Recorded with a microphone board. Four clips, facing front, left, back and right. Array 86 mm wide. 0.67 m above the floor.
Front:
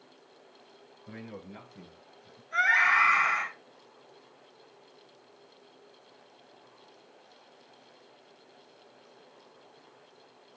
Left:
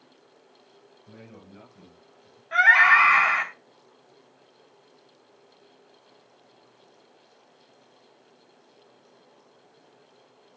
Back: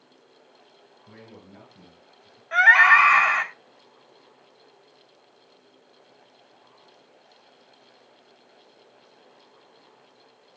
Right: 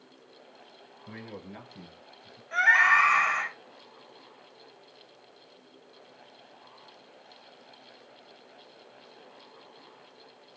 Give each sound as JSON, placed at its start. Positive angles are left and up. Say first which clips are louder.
{"t": 1.1, "sound": "a man speaking", "louder": "right 5 dB, front 4 dB", "azimuth_deg": -75, "distance_m": 9.5}
{"t": 2.5, "sound": "a scream", "louder": "left 4 dB, back 9 dB", "azimuth_deg": 165, "distance_m": 3.5}